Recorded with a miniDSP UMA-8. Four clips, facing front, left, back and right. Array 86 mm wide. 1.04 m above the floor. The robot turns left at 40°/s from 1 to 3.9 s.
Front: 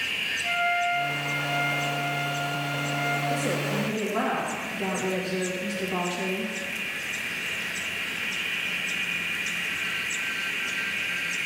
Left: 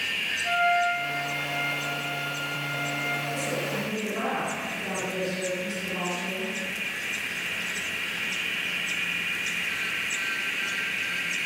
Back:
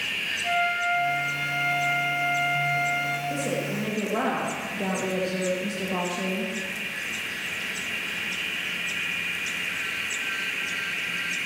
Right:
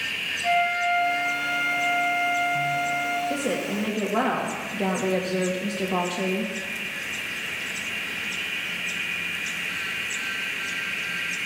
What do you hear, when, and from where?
0.4 s a flute: 90° right, 3.5 m; by 3.2 s 175° right, 3.5 m
3.3 s a woman speaking: 80° right, 1.9 m; by 6.5 s 105° right, 1.9 m